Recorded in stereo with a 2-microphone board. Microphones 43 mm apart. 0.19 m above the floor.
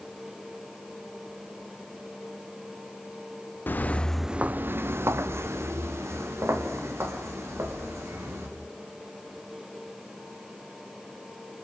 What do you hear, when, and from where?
3.7 s footsteps: 50° left (ahead or behind), 1.0 m; by 8.5 s 90° right, 6 m